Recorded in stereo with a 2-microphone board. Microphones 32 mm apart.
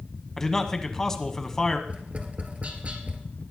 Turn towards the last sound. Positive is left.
turn(degrees=-35)  # may be behind; listen again after turning